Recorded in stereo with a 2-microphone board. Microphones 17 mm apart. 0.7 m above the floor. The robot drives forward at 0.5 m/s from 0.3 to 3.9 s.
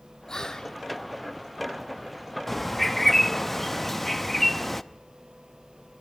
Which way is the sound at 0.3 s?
40° left (ahead or behind).